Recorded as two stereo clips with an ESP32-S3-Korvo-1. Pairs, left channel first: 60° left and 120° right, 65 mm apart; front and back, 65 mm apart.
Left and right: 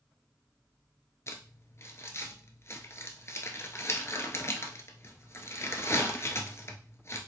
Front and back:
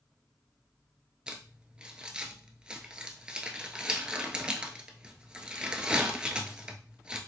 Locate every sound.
1.3 s crumpling: 105° left, 0.9 m